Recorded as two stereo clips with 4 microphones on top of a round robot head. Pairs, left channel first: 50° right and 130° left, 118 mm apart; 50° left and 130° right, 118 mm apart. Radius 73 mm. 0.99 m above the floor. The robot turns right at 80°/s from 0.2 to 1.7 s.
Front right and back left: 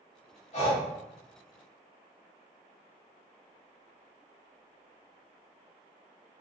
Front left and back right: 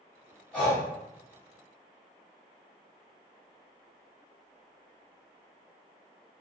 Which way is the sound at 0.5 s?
30° right.